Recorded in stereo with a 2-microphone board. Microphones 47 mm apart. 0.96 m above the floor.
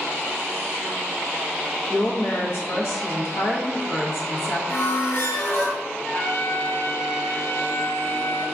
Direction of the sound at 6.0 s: 75° left (ahead or behind).